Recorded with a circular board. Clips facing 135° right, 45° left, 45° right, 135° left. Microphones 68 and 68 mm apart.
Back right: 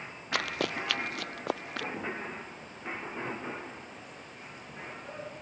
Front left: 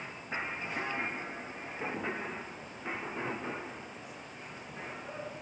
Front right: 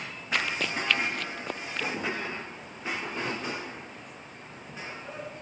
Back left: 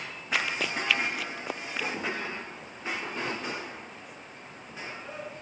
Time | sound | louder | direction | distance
0.3 | running footsteps | back right 5 dB, even | 140° right | ?